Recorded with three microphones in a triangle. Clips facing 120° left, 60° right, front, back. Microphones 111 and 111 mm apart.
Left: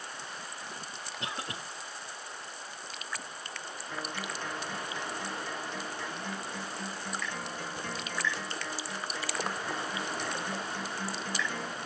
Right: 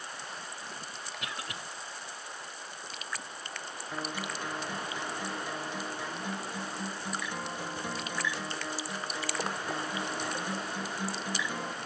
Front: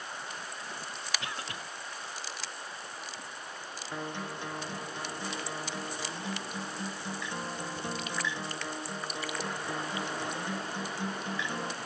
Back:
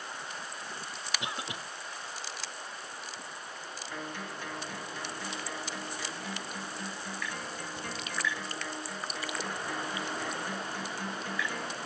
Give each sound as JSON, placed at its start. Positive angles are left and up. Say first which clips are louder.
{"t": 1.2, "sound": "a cough", "louder": "left 3 dB, back 1 dB", "azimuth_deg": 130, "distance_m": 1.2}
{"t": 3.9, "sound": "a guitar", "louder": "right 1 dB, front 3 dB", "azimuth_deg": -5, "distance_m": 0.9}